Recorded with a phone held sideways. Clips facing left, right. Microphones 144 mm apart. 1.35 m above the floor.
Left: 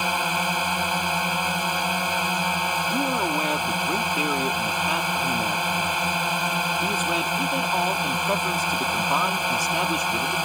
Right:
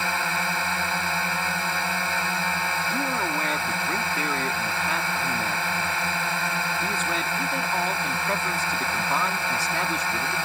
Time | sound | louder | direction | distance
0.0 | a drone | left 2 dB | 15° left (ahead or behind) | ?
2.9 | a man speaking | left 4 dB | 15° left (ahead or behind) | ?